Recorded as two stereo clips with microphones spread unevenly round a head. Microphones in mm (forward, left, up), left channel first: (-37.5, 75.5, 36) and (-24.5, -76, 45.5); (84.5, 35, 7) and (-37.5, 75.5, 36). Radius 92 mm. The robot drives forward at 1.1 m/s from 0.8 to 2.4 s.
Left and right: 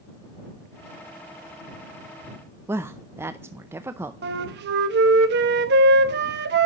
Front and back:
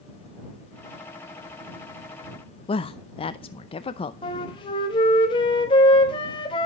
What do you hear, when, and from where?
2.7 s a woman speaking: 10° right, 0.6 m
4.2 s a flute: 75° right, 1.0 m